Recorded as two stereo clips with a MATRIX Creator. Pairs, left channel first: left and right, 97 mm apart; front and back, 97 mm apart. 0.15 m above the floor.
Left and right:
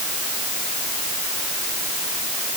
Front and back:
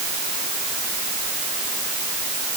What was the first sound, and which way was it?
Only background noise.